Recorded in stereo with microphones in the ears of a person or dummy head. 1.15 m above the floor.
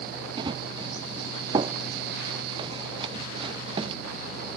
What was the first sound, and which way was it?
Running footsteps, 25° right (ahead or behind).